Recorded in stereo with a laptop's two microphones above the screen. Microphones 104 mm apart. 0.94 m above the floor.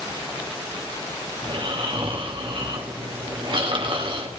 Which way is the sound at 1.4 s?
55° right (ahead or behind).